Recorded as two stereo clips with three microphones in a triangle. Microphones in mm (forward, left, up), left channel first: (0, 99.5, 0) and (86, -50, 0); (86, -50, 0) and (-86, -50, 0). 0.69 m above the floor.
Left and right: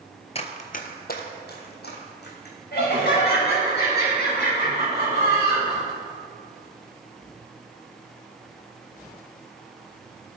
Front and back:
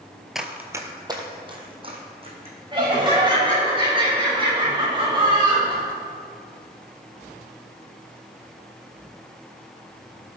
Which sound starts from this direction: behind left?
Laughter, at 2.7 s.